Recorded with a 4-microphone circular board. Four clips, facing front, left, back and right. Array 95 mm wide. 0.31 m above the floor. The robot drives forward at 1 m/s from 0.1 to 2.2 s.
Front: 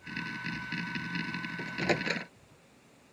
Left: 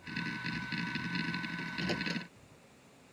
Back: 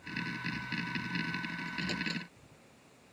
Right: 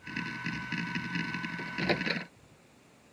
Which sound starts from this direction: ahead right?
A microwave, at 1.6 s.